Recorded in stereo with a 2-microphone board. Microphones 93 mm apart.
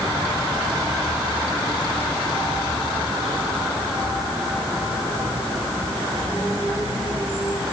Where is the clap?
I don't hear a clap.